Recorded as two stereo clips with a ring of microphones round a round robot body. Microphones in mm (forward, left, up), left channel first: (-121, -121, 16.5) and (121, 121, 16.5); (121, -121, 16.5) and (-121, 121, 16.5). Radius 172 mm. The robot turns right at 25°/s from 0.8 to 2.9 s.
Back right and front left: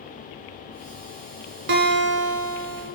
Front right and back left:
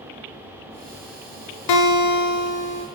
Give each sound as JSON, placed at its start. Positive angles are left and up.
{"t": 1.7, "sound": "a guitar", "azimuth_deg": -15, "distance_m": 0.6}